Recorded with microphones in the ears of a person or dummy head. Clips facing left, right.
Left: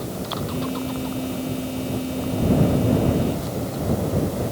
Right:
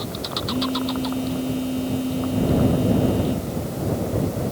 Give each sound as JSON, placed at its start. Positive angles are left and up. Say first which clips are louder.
{"t": 0.5, "sound": "a phone buzzing", "louder": "right 5 dB", "side_deg": -5}